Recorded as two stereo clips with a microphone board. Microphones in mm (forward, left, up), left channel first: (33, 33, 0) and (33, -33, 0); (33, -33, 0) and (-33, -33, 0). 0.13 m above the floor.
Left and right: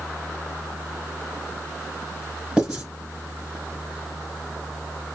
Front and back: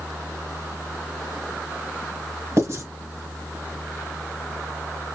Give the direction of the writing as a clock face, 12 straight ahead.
5 o'clock.